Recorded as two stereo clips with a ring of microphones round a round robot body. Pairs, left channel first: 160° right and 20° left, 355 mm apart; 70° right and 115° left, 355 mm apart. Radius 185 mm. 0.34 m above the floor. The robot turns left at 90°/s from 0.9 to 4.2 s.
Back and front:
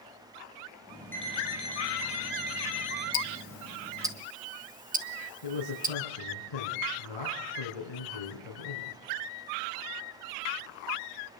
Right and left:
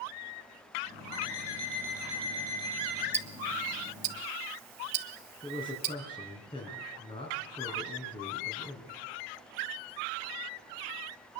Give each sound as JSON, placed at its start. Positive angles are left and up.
{"t": 1.1, "sound": "an alarm clock", "azimuth_deg": -70, "distance_m": 9.0}
{"t": 3.1, "sound": "ticking", "azimuth_deg": -175, "distance_m": 1.7}
{"t": 5.4, "sound": "a man speaking", "azimuth_deg": -145, "distance_m": 4.5}